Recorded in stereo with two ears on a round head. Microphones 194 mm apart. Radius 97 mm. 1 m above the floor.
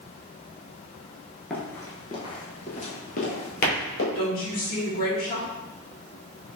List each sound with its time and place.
1.5 s running footsteps: 5° left (ahead or behind), 1.0 m; by 4.0 s 50° left (ahead or behind), 1.8 m
4.2 s a woman speaking: 40° left (ahead or behind), 1.7 m